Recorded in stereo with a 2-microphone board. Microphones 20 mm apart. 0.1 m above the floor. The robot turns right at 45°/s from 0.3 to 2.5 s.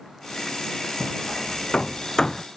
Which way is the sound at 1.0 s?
80° left.